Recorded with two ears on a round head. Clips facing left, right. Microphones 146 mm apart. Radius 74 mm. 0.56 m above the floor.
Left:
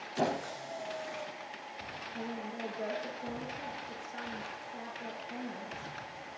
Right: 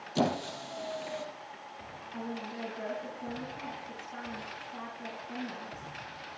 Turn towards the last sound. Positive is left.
turn(degrees=-80)